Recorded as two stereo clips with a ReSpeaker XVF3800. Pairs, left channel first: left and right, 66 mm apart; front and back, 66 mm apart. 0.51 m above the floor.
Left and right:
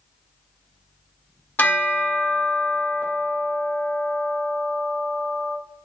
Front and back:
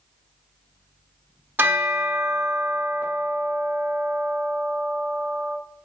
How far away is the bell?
About 1.3 m.